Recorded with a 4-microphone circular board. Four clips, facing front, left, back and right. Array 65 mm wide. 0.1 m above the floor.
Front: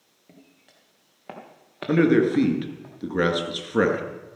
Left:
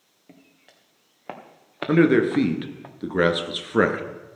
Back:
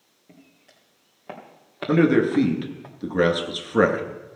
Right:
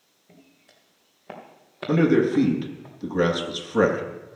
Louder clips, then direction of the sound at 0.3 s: Left 2 dB, back 1 dB; 80° left.